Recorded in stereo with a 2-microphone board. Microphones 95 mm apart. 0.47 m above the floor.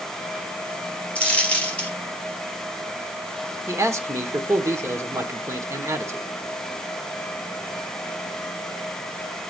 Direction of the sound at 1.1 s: 15° left (ahead or behind).